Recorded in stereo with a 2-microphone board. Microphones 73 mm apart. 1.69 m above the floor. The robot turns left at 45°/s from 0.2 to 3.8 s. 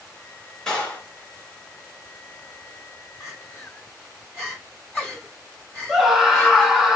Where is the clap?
10° left (ahead or behind), 3 m; by 1.1 s 25° left (ahead or behind), 3 m.